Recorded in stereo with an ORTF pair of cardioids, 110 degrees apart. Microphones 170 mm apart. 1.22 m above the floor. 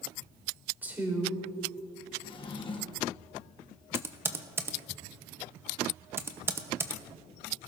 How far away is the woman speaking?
About 3.5 m.